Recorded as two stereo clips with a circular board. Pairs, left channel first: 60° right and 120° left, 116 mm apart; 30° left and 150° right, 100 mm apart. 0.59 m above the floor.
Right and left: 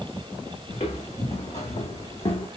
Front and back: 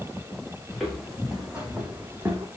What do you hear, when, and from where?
0.7 s footsteps: 60° right, 2 m; by 2.5 s 90° right, 1.4 m